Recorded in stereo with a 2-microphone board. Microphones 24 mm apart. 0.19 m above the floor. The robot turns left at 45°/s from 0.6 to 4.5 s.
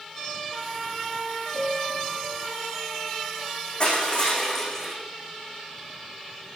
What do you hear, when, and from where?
1.5 s a piano: 65° right (ahead or behind), 8 m; by 2.1 s 90° right, 8 m
3.8 s crushing: 50° left, 7.5 m; by 5.0 s 20° left, 7.5 m